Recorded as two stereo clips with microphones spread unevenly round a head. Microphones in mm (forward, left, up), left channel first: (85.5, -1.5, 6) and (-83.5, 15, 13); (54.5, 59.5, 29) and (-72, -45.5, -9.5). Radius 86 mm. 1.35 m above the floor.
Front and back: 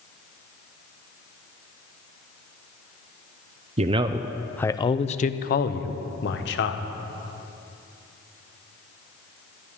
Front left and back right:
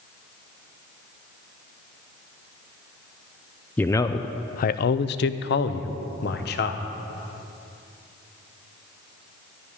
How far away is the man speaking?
About 0.6 m.